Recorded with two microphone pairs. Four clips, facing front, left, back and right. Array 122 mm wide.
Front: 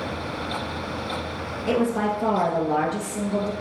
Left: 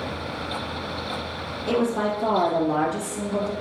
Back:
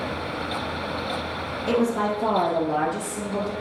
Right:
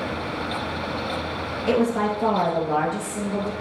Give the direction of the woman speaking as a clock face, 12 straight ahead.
2 o'clock.